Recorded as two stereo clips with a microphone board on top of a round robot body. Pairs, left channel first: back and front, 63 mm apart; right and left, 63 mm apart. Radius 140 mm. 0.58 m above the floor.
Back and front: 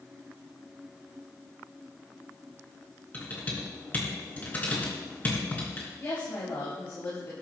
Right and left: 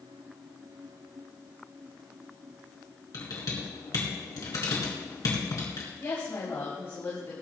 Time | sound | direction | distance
3.1 | typing on a keyboard | 115° right | 4 m
6.0 | a woman speaking | 135° right | 4 m